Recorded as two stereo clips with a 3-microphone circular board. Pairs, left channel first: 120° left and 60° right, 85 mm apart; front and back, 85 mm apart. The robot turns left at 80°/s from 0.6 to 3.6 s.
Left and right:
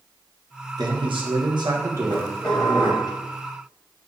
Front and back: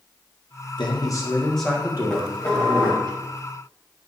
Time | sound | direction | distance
0.8 | a man speaking | 20° right | 1.0 m
2.1 | dishes clattering | 95° left | 1.6 m